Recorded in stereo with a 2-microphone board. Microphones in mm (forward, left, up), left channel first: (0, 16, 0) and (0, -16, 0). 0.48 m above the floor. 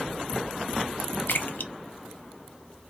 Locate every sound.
1.3 s a splash: 75° left (ahead or behind), 0.7 m